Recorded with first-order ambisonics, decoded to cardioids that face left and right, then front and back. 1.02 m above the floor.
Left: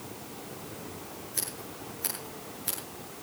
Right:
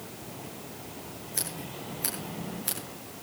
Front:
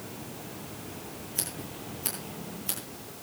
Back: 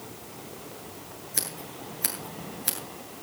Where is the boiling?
No boiling in this recording.